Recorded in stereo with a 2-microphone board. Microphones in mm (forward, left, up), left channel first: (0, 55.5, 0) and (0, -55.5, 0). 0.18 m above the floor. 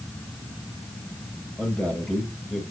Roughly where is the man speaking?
Centre.